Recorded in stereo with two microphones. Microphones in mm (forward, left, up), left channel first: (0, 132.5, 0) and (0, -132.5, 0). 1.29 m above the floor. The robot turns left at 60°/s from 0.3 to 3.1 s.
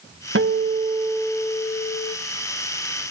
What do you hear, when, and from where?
0.3 s a guitar: 125° right, 1.4 m; by 2.1 s 130° left, 1.4 m